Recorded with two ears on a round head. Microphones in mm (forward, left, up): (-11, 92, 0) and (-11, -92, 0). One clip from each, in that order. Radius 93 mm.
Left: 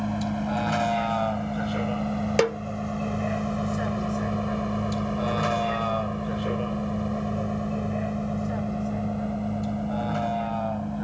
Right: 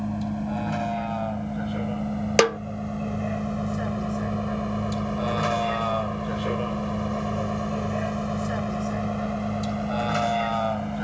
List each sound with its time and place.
0.0 s a vehicle: 35° left (ahead or behind); by 11.0 s 55° right (ahead or behind)
2.4 s a snare drum: 30° right (ahead or behind)